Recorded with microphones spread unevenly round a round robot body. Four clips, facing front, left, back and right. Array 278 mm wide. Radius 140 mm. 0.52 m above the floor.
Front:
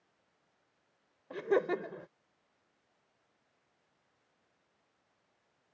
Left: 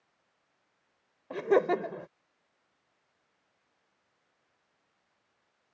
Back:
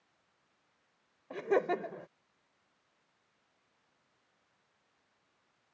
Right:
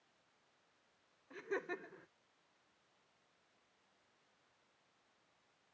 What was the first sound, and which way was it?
Laughter, 90° left.